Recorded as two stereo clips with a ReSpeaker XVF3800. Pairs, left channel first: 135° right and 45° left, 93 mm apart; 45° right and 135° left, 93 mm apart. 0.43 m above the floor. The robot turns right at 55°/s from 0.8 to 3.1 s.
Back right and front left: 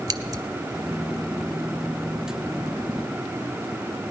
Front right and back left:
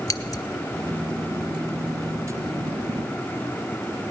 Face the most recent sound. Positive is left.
turn(degrees=130)